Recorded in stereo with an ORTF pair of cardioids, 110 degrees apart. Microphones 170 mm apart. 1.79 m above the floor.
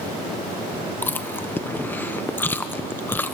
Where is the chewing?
10° left, 1.3 m.